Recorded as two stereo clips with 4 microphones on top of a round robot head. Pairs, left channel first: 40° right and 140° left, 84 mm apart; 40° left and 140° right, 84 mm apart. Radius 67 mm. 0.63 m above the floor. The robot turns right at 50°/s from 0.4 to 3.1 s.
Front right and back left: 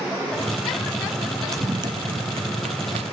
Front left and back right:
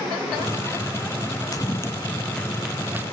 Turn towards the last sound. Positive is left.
turn(degrees=155)